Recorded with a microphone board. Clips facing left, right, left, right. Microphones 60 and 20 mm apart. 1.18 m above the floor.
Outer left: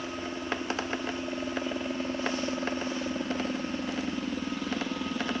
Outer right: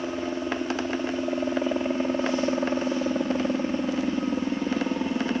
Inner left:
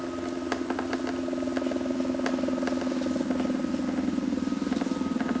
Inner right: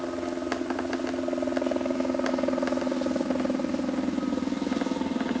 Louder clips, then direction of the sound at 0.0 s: Outer right 6 dB, inner right 1 dB; 30° right (ahead or behind).